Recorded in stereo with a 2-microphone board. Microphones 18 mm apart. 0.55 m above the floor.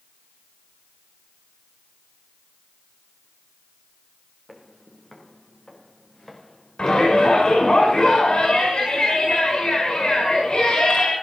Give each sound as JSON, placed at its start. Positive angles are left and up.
{"t": 4.5, "sound": "footsteps", "side_deg": 10, "distance_m": 3.5}
{"t": 6.8, "sound": "a shout", "side_deg": 75, "distance_m": 6.0}